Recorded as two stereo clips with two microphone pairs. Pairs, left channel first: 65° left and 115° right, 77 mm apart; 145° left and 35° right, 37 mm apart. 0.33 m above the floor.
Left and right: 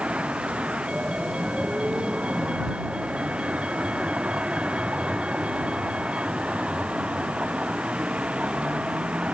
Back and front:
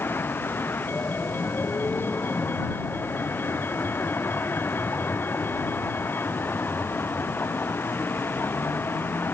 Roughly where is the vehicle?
Behind.